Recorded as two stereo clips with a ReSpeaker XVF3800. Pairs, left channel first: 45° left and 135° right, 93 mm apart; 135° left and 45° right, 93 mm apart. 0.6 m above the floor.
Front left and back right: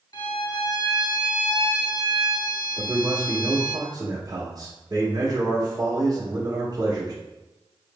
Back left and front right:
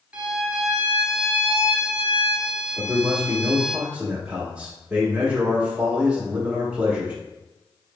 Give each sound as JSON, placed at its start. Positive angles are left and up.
{"t": 0.1, "sound": "a violin", "azimuth_deg": 30, "distance_m": 0.6}
{"t": 2.8, "sound": "a man speaking", "azimuth_deg": -115, "distance_m": 1.0}